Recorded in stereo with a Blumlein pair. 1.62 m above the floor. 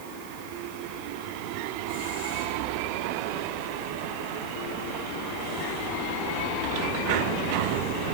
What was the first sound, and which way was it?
Only background noise.